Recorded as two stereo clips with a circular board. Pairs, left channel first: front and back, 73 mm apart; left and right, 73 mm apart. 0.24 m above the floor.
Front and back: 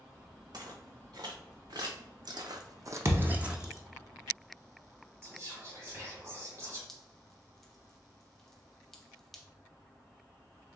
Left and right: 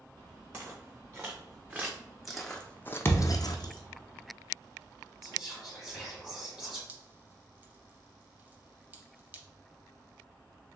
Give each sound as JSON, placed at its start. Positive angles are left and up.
{"t": 0.5, "sound": "footsteps", "azimuth_deg": -150, "distance_m": 1.4}
{"t": 3.0, "sound": "a thud", "azimuth_deg": 140, "distance_m": 0.6}
{"t": 5.2, "sound": "whispering", "azimuth_deg": -165, "distance_m": 1.8}
{"t": 6.9, "sound": "dripping", "azimuth_deg": -80, "distance_m": 0.5}